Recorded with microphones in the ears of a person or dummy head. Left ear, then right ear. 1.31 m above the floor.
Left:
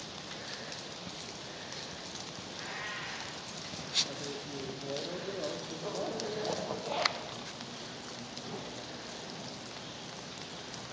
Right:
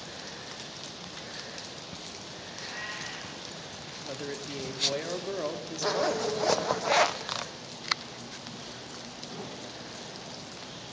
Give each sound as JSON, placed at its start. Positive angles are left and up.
{"t": 2.5, "sound": "a cat meowing", "side_deg": 40, "distance_m": 9.5}
{"t": 4.0, "sound": "a man speaking", "side_deg": -60, "distance_m": 1.0}
{"t": 5.8, "sound": "a zipper", "side_deg": -60, "distance_m": 0.5}